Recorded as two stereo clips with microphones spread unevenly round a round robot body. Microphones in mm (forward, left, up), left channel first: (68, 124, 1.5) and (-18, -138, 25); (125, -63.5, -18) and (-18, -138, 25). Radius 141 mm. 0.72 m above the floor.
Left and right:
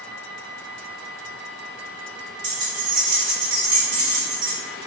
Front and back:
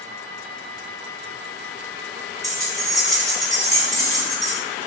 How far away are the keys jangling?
About 1.2 m.